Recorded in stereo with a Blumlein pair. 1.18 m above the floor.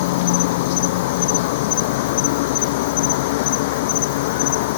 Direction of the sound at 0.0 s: 50° left.